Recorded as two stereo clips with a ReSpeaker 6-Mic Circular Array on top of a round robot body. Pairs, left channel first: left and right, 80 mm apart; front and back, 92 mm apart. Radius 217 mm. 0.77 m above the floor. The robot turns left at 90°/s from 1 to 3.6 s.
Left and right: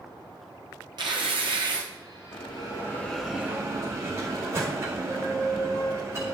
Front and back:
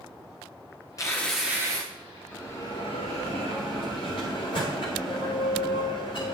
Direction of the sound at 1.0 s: 55° right.